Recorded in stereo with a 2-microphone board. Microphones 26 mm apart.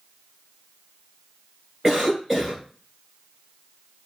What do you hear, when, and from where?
1.8 s a cough: 20° right (ahead or behind), 1.6 m